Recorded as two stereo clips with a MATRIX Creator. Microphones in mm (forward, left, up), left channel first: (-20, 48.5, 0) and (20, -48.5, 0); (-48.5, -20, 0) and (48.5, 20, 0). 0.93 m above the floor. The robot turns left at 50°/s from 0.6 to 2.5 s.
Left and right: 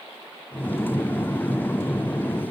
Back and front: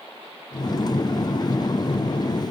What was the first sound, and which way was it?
Only background noise.